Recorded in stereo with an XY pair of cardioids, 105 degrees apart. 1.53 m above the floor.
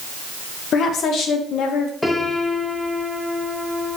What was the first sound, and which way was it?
A woman speaking, 65° left.